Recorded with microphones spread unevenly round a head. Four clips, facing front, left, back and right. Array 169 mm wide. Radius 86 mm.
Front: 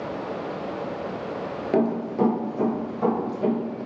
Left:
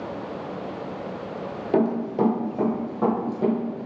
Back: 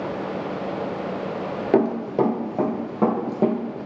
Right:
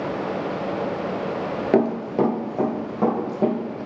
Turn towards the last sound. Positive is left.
turn(degrees=-155)